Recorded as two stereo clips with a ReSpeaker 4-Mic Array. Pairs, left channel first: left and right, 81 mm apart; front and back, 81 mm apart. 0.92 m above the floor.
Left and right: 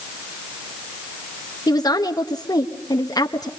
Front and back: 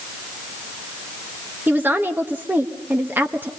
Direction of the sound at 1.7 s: 115° left.